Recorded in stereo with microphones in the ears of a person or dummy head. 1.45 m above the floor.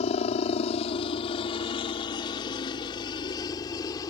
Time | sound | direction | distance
0.0 | a helicopter | 35° left (ahead or behind) | ?